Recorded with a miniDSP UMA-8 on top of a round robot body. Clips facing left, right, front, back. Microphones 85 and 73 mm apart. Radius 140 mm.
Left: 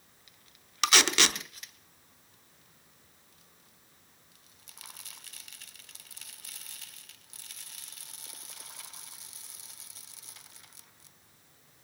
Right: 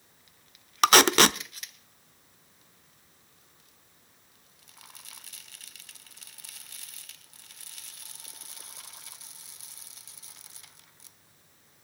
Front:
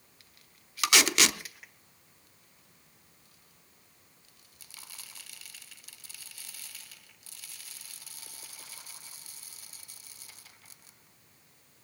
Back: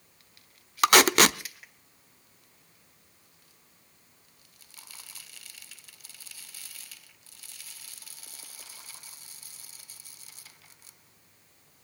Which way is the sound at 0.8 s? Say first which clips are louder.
Right 8 dB, back 7 dB; 135° right.